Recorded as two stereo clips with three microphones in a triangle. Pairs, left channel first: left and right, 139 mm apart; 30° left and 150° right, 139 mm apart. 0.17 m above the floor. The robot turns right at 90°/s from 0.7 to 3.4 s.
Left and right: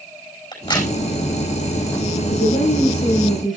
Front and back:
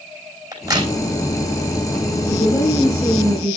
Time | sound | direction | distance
0.5 | a crack | 145° left | 5 m
2.3 | a woman speaking | 75° left | 5.5 m